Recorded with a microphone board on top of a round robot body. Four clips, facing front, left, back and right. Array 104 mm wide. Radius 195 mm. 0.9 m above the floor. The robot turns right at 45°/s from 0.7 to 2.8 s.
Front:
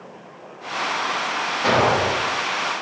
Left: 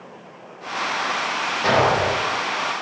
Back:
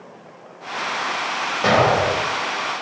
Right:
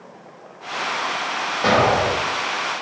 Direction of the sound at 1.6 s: 155° right.